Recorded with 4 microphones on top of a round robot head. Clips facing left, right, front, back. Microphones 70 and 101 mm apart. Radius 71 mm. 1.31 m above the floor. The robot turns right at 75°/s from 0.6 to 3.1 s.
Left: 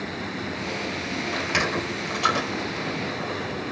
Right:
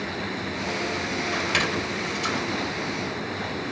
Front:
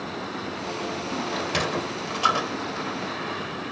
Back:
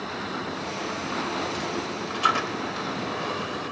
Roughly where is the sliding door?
Ahead.